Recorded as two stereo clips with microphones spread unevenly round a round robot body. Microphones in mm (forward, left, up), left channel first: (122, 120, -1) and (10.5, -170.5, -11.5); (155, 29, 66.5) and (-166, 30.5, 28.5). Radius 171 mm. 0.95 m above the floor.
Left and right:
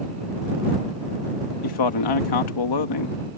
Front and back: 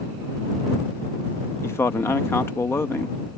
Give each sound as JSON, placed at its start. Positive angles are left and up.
{"t": 1.6, "sound": "a man speaking", "azimuth_deg": 85}